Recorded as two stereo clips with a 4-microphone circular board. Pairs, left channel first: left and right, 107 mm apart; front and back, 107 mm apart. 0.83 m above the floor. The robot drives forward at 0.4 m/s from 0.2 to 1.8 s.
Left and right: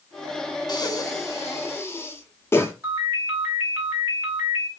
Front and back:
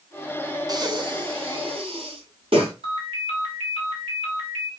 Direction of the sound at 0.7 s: 135° left.